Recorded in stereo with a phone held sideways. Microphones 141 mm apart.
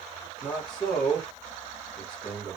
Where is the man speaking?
5° left (ahead or behind), 1.4 m.